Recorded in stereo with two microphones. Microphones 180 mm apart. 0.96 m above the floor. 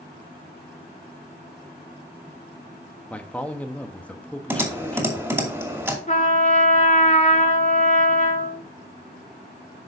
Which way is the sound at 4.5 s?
10° right (ahead or behind).